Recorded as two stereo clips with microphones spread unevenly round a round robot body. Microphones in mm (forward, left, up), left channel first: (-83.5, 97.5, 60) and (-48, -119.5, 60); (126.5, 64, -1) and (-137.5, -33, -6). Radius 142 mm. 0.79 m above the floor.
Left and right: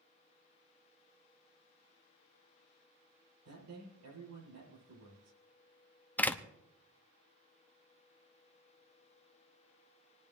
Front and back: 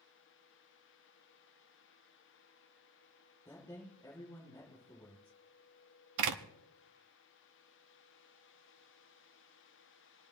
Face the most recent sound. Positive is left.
turn(degrees=180)